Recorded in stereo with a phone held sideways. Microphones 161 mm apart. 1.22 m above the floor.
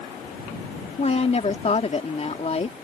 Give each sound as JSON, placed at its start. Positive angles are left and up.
{"t": 1.0, "sound": "a woman speaking", "side_deg": 45}